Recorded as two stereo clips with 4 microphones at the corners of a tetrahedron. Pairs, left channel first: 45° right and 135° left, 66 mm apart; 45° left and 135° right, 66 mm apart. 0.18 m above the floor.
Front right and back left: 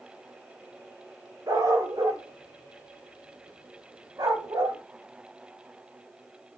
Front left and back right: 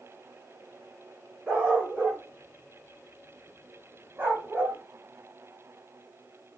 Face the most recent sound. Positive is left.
turn(degrees=160)